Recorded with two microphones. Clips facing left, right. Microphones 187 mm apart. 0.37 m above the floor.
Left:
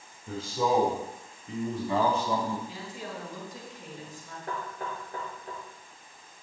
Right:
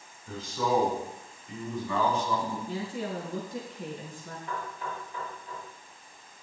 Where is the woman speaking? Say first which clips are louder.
Right 6 dB; 70° right (ahead or behind), 3.5 m.